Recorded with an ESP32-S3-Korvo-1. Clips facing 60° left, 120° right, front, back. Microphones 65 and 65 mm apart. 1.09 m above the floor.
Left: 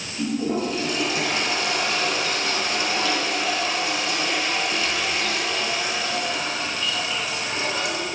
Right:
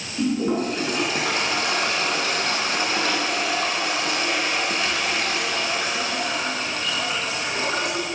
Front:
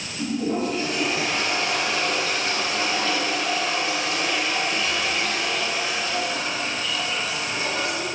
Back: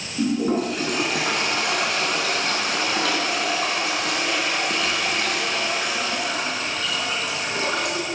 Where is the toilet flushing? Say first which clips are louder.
Right 2 dB, back 3 dB; 165° right, 4 m.